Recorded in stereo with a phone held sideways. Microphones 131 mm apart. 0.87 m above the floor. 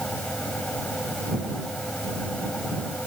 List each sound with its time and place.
0.0 s a fan: 10° left (ahead or behind)